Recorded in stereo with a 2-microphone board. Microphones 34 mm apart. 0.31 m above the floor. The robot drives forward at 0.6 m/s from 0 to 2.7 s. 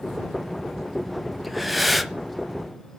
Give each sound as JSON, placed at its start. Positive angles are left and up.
{"t": 1.4, "sound": "breathing", "side_deg": 0, "distance_m": 1.0}